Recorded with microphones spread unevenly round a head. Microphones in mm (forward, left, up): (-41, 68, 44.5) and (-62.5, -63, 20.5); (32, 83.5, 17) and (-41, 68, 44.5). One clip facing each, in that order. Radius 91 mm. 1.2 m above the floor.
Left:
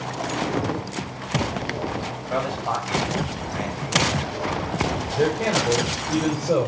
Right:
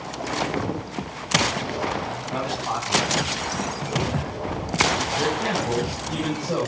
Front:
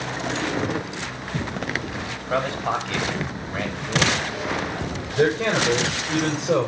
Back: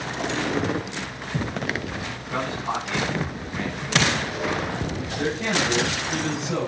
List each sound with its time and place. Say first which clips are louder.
2.3 s a man speaking: left 3 dB, front 4 dB; 35° left, 7 m
5.2 s a man speaking: left 7 dB, front 6 dB; 30° left, 6 m